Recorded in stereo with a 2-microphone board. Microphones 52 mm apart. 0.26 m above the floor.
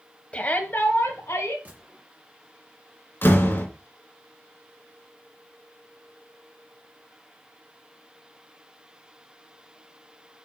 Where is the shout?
25° left (ahead or behind), 1.3 m; by 1.6 s 60° left (ahead or behind), 2 m.